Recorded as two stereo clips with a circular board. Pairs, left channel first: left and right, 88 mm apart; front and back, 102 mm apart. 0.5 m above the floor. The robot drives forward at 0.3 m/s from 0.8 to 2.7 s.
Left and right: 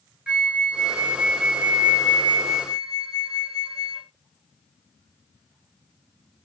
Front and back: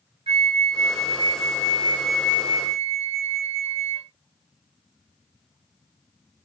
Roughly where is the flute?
Behind.